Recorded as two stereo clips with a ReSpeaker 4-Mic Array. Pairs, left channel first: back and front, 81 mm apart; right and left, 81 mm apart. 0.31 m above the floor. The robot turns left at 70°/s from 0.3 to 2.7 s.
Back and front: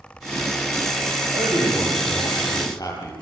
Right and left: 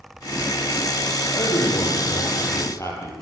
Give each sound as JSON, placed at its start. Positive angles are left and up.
{"t": 1.3, "sound": "a man speaking", "azimuth_deg": -45, "distance_m": 9.0}